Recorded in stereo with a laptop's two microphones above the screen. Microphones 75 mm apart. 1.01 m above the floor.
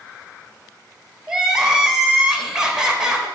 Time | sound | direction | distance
1.3 | crying | 10° right (ahead or behind) | 1.7 m